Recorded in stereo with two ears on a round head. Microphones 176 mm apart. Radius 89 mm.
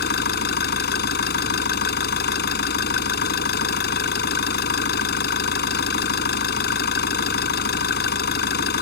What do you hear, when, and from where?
0.0 s an engine running: 50° left (ahead or behind)